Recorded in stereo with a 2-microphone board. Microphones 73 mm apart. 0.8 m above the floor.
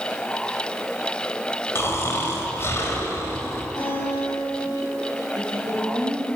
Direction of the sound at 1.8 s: 40° left (ahead or behind).